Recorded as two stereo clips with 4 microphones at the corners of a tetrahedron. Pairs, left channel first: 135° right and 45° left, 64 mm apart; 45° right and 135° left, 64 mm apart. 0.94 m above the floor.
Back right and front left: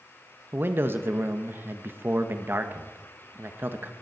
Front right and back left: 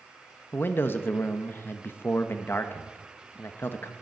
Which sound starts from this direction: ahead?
A man speaking, at 0.5 s.